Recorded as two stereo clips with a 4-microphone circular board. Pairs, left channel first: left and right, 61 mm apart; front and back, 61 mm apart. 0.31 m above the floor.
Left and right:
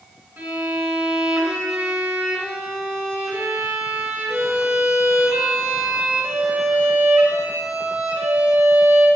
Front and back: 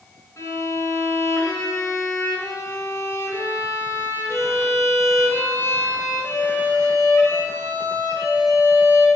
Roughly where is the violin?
Ahead right.